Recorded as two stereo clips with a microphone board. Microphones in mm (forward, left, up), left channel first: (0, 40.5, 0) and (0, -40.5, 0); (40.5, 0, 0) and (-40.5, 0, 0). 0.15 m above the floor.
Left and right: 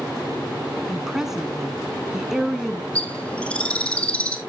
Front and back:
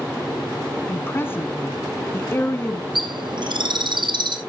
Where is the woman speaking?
10° right, 1.2 m.